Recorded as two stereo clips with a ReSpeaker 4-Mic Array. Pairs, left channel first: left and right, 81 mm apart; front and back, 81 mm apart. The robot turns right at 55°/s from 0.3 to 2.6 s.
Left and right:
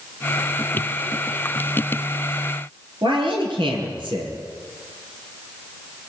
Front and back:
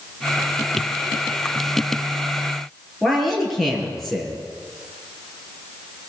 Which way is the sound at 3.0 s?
90° right.